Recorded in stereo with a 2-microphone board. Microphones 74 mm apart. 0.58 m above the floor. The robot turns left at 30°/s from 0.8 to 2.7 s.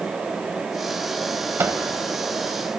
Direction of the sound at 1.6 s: 30° right (ahead or behind).